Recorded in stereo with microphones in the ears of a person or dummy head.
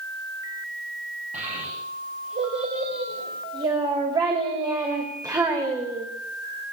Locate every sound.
1.3 s a child speaking: 35° right (ahead or behind), 5.5 m; by 6.1 s 10° right (ahead or behind), 3.5 m